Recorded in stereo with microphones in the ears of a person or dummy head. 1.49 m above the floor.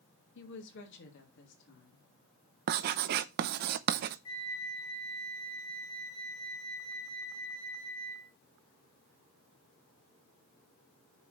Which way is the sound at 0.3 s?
70° left (ahead or behind).